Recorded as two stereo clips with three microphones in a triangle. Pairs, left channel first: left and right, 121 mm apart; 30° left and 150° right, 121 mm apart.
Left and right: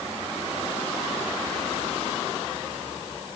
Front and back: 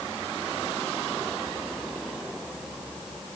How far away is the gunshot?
No gunshot in this recording.